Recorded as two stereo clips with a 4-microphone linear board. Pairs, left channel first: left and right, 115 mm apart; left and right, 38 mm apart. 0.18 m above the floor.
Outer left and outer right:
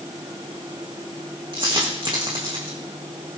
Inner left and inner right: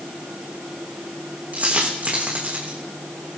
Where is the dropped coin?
50° right (ahead or behind), 4.5 m.